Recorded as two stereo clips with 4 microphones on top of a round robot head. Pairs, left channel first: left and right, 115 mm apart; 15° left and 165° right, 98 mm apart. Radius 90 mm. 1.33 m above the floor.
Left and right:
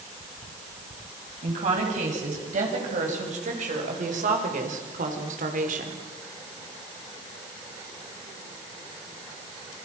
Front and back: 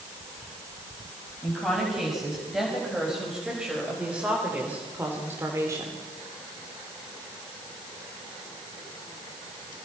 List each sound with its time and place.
1.4 s a woman speaking: 75° right, 7.5 m; by 6.0 s 100° right, 3 m